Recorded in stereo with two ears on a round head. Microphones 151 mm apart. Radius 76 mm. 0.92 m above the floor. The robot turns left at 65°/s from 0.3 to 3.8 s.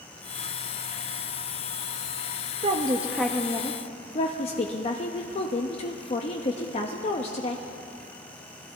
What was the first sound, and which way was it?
A woman speaking, 145° right.